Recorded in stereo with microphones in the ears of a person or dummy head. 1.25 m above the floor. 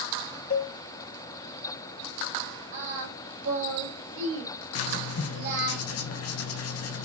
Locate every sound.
0.5 s a cowbell: 50° left (ahead or behind), 1.0 m
2.7 s singing: 65° right (ahead or behind), 1.8 m
4.8 s writing: 70° left (ahead or behind), 0.6 m